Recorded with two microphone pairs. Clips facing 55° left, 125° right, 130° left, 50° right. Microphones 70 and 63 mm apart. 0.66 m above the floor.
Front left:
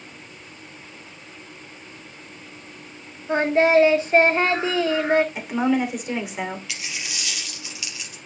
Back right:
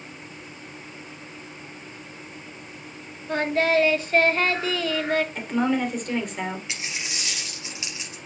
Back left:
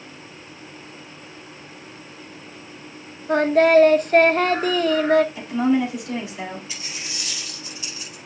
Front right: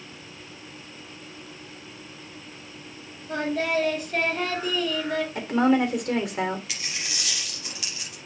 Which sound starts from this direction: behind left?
Singing, at 3.3 s.